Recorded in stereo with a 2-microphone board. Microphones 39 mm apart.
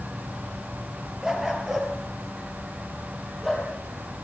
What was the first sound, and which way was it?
A dog barking, 15° right (ahead or behind).